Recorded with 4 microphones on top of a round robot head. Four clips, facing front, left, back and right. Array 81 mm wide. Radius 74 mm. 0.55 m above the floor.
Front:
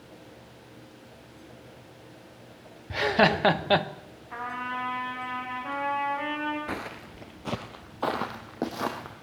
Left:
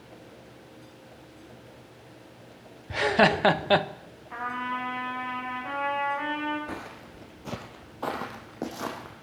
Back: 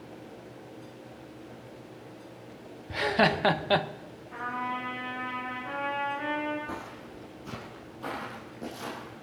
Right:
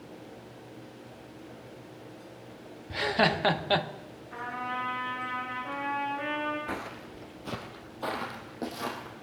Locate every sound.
2.9 s laughter: 60° left, 0.8 m
4.3 s a trumpet: 45° left, 5.5 m
6.7 s footsteps: 20° right, 0.5 m; by 9.1 s 20° left, 1.9 m